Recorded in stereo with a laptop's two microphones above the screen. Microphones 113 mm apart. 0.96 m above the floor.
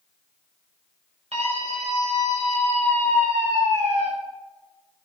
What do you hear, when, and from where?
1.3 s a scream: 75° right (ahead or behind), 5.5 m